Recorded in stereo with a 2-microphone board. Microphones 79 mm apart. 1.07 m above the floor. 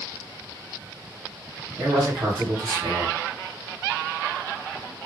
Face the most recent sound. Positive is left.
turn(degrees=-55)  # may be behind; listen again after turning